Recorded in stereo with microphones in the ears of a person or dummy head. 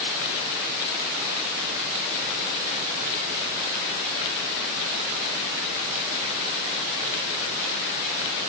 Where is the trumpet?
I don't hear a trumpet.